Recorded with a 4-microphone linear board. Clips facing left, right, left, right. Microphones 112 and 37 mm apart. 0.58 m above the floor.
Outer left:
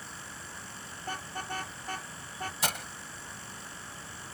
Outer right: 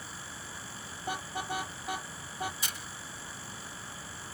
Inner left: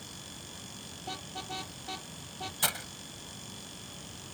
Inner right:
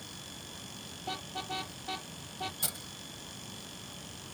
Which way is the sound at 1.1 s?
10° right (ahead or behind).